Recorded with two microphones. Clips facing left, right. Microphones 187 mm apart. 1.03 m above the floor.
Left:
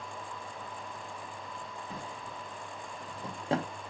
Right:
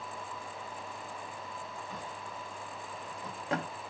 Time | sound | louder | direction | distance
1.9 | a drawer | left 1 dB | 30° left (ahead or behind) | 0.8 m